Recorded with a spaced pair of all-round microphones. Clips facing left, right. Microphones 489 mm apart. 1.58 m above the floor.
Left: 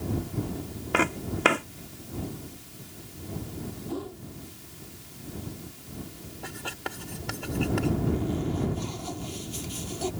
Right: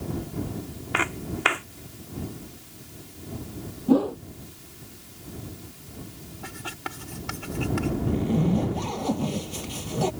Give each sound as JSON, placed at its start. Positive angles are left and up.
{"t": 0.9, "sound": "footsteps", "side_deg": 55}
{"t": 3.9, "sound": "a whoosh", "side_deg": -80}
{"t": 6.4, "sound": "writing", "side_deg": -25}
{"t": 8.1, "sound": "a zipper", "side_deg": -85}